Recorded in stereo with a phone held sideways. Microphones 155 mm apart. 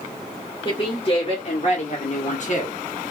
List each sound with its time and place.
0.7 s a woman speaking: 35° left (ahead or behind), 1.7 m; by 2.8 s 50° left (ahead or behind), 1.1 m